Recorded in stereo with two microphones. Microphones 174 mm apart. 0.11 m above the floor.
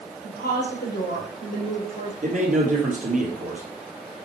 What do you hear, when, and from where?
0.2 s a woman speaking: 60° left (ahead or behind), 3 m
2.2 s a man speaking: 45° right (ahead or behind), 2.5 m